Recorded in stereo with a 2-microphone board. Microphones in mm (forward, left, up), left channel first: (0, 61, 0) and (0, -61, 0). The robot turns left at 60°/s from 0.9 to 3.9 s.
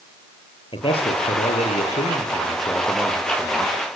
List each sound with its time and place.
0.7 s a man speaking: 130° left, 7 m; by 4.0 s 50° right, 7 m